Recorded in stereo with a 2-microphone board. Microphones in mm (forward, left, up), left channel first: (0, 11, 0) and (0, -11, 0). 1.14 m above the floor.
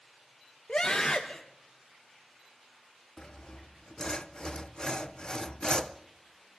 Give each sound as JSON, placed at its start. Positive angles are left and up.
{"t": 0.7, "sound": "a scream", "side_deg": 40, "distance_m": 1.2}
{"t": 3.2, "sound": "sawing", "side_deg": 35, "distance_m": 0.7}